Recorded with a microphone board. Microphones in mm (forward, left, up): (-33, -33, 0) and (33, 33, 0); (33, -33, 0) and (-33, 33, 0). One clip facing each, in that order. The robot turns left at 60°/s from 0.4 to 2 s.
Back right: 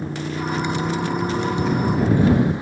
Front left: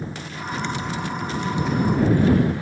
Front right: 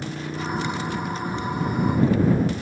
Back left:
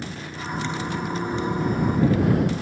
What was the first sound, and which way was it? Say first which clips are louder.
A motorcycle: back right 6 dB, front right 4 dB; 110° right.